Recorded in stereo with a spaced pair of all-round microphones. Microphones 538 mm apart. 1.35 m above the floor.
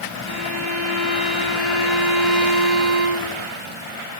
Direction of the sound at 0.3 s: 40° right (ahead or behind).